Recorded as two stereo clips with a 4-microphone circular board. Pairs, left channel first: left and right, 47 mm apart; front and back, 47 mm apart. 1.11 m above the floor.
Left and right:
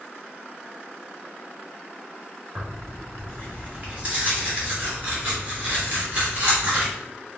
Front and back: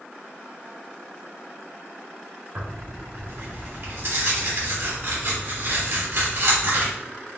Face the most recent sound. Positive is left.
turn(degrees=-150)